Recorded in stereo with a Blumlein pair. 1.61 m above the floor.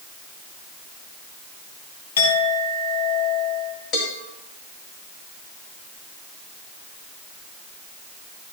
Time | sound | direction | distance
2.2 | a clink | 65° left | 2 m
3.9 | a cowbell | 30° left | 2.5 m